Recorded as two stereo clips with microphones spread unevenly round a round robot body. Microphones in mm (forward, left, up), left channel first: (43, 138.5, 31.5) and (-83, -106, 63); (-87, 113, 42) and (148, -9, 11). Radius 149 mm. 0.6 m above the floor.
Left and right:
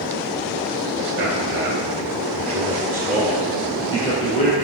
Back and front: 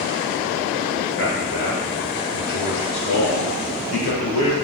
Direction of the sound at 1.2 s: 155° right.